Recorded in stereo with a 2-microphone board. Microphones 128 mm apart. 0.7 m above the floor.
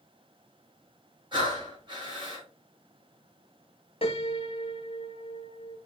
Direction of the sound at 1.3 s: 40° right (ahead or behind).